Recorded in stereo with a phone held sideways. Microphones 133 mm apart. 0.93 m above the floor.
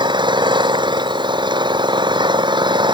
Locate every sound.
0.0 s an engine running: 35° right (ahead or behind)